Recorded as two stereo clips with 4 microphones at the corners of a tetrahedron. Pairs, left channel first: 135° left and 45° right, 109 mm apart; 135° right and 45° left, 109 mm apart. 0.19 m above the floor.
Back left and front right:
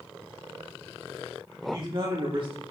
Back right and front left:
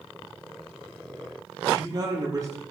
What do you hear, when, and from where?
1.6 s a man speaking: straight ahead, 5.5 m; by 2.6 s 15° right, 5.5 m